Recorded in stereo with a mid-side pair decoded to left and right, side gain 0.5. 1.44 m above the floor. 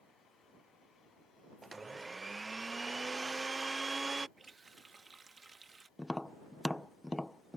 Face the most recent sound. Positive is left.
turn(degrees=10)